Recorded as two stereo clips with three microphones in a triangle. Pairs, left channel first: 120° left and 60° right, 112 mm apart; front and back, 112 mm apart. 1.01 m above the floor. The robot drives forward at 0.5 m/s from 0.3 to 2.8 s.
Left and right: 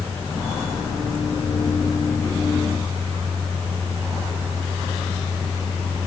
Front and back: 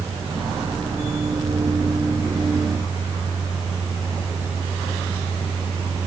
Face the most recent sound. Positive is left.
No sound to turn to.